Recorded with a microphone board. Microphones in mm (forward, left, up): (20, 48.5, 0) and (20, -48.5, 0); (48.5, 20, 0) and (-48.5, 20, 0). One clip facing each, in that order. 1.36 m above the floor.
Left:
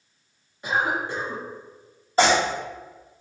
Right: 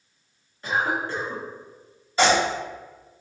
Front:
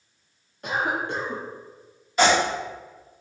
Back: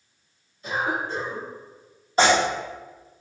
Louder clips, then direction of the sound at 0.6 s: Even, front 1 dB; 15° left.